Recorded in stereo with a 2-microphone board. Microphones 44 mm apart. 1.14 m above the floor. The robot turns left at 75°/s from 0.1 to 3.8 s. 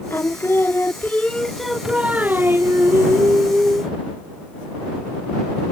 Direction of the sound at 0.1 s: 115° left.